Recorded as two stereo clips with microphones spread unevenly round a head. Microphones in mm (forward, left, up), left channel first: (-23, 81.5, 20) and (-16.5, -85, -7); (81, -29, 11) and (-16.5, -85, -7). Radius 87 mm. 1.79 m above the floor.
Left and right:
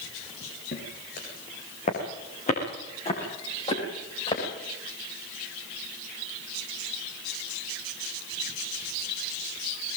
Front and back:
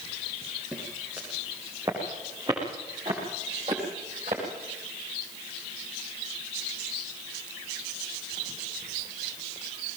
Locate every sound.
0.7 s footsteps: 125° left, 6.5 m; by 4.4 s 150° left, 9 m